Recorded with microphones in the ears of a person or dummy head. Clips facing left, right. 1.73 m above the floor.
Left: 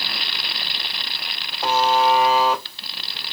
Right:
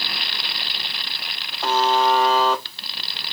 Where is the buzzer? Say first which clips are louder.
Left 1 dB; 5° left (ahead or behind), 1.3 m.